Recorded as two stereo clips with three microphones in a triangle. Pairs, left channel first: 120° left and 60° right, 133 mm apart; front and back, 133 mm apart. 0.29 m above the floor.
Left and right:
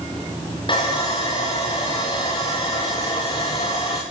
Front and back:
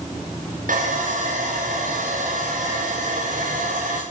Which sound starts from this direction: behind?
Sawing, at 0.7 s.